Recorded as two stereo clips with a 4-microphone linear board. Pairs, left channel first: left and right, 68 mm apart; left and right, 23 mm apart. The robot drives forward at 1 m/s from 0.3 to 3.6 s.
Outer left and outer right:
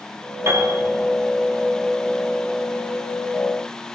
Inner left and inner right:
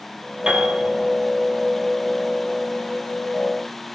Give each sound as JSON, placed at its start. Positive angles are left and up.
{"t": 0.5, "sound": "a piano", "side_deg": -45, "distance_m": 4.0}